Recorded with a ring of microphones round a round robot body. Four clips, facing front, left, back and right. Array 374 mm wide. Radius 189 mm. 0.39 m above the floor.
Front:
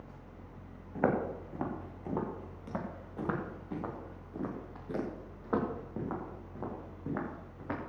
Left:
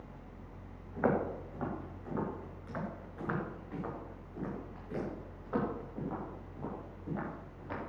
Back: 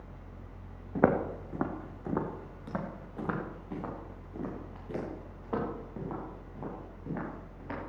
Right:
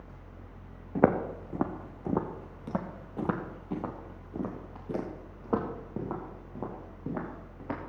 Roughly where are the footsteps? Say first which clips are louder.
Right 6 dB, back 4 dB; behind right.